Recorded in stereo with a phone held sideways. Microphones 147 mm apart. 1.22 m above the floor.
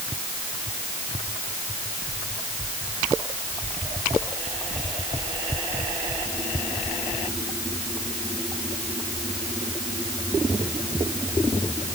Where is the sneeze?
No sneeze in this recording.